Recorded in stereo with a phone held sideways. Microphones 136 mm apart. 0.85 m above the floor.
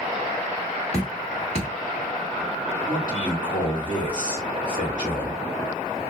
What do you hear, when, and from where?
0.9 s dripping: 45° left (ahead or behind), 1.6 m
2.9 s a man speaking: 35° left (ahead or behind), 1.9 m